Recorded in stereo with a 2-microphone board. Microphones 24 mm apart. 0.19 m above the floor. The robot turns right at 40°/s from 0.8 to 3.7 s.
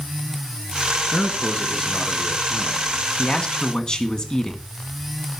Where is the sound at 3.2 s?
40° left (ahead or behind), 1.7 m; by 4.6 s 35° left (ahead or behind), 1.7 m.